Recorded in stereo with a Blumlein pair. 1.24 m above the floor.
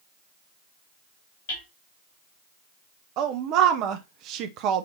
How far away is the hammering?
About 3 m.